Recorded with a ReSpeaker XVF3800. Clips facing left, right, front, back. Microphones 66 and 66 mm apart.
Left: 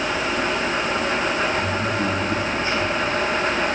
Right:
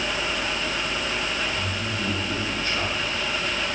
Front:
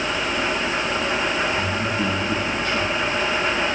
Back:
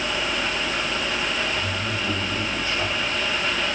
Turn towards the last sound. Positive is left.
turn(degrees=25)